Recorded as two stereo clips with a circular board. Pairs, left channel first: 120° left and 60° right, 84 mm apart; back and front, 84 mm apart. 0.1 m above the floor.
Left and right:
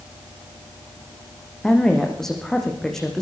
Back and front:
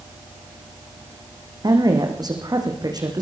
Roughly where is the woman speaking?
Ahead left.